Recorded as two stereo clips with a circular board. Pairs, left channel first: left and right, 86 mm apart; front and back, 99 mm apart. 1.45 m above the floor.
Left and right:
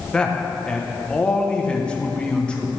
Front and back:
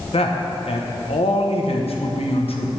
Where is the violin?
No violin in this recording.